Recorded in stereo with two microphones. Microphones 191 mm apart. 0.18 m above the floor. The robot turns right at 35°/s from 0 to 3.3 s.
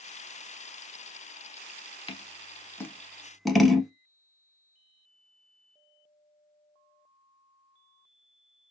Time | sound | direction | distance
2.1 | scissors | 30° left (ahead or behind) | 0.5 m